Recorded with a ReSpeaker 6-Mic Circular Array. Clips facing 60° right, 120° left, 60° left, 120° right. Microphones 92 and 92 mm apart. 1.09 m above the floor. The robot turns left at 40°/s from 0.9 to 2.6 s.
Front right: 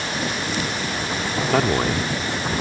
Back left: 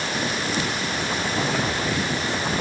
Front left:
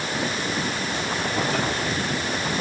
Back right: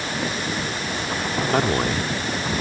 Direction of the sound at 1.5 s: 75° right.